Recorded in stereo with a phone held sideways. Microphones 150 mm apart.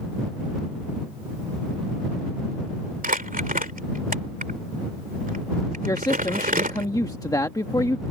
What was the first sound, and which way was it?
Crumpling, 70° right (ahead or behind).